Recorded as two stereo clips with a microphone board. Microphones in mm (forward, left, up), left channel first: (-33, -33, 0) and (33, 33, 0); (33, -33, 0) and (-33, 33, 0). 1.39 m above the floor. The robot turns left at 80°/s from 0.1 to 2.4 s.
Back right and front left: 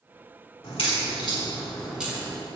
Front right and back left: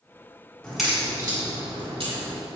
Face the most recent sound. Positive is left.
turn(degrees=95)